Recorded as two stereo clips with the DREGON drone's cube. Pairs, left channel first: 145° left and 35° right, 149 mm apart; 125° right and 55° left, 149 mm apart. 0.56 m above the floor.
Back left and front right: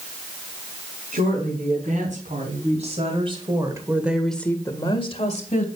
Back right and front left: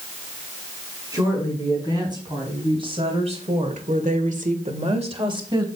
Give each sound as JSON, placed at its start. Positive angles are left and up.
{"t": 1.1, "sound": "a woman speaking", "azimuth_deg": -10, "distance_m": 5.0}